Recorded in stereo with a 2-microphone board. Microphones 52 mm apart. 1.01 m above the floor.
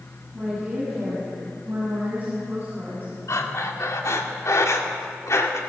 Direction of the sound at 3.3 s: 80° left.